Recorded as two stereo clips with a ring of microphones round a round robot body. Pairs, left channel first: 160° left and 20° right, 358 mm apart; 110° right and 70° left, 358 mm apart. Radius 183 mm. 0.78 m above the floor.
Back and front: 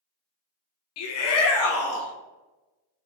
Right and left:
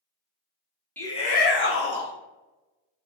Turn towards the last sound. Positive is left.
turn(degrees=-155)